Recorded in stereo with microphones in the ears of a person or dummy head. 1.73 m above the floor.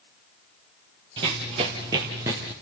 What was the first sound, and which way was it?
Running footsteps, 20° right (ahead or behind).